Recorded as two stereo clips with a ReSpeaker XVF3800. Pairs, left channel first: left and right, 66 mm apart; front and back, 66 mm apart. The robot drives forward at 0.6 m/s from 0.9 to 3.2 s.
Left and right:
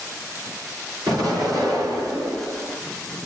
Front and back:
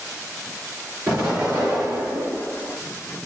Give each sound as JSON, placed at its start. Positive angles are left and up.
{"t": 1.1, "sound": "an explosion", "azimuth_deg": -110, "distance_m": 4.0}